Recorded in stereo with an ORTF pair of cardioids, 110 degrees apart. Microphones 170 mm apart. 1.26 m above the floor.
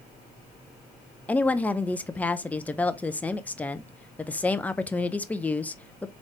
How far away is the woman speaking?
About 0.6 m.